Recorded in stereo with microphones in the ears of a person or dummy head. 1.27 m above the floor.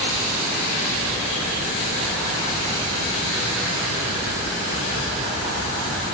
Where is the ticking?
I don't hear ticking.